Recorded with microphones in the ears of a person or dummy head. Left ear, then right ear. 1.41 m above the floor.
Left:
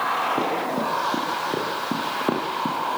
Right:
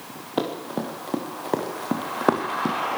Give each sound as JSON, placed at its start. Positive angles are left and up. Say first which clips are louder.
{"t": 0.4, "sound": "running footsteps", "louder": "left 4 dB", "side_deg": -80, "distance_m": 7.0}